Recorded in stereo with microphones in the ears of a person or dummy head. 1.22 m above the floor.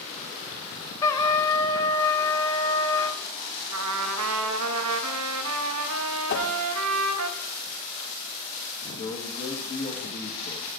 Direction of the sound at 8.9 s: 25° left (ahead or behind).